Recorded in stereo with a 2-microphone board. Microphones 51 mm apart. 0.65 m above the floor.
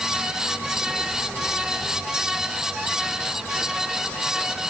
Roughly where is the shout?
I don't hear a shout.